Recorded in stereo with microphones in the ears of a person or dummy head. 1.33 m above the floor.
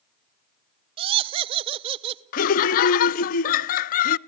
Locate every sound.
1.0 s laughter: 35° right (ahead or behind), 0.9 m
2.3 s laughter: 45° left (ahead or behind), 0.6 m